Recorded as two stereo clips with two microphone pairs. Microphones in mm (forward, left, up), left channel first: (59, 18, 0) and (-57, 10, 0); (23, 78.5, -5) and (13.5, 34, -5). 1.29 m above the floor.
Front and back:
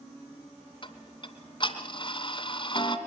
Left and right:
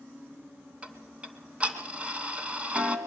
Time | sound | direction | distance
0.8 | ticking | 40° right | 2.5 m